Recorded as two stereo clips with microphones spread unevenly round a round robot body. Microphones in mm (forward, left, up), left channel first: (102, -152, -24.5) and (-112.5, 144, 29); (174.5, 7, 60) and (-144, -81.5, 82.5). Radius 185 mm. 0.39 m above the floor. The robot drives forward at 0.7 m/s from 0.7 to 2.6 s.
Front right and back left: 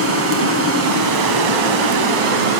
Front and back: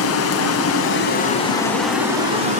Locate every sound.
0.0 s running water: 70° left, 1.3 m; by 2.6 s 125° left, 1.5 m